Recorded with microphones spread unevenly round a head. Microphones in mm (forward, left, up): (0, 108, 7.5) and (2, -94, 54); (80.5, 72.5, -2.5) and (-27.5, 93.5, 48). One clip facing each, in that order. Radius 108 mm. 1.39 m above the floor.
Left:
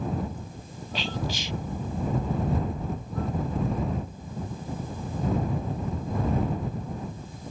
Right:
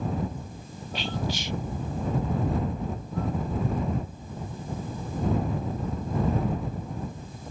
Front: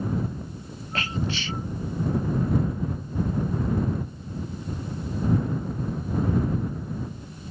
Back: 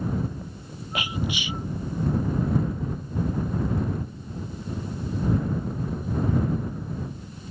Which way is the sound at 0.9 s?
90° left.